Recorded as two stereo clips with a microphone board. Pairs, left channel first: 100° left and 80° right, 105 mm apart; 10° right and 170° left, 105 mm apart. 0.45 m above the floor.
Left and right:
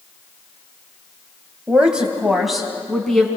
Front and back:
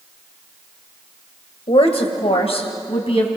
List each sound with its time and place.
1.7 s a woman speaking: straight ahead, 2.0 m; by 3.3 s 15° left, 3.5 m